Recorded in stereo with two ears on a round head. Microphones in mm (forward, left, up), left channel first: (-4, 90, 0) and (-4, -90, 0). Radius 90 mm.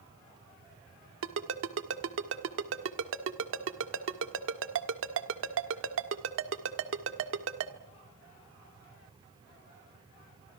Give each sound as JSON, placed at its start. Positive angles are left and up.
{"t": 1.2, "sound": "a ringtone", "side_deg": -70, "distance_m": 1.7}